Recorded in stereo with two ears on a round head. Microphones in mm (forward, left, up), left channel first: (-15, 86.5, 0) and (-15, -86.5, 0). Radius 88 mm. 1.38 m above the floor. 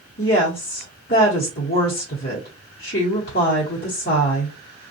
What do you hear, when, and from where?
0.2 s a woman speaking: 45° left (ahead or behind), 0.9 m